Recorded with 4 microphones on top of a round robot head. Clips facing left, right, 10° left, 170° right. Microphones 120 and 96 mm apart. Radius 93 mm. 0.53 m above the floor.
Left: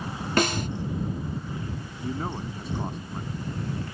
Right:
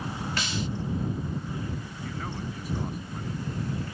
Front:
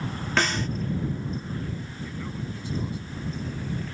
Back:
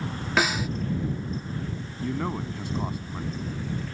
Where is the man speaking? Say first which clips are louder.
Left 6 dB, back 9 dB; 160° left.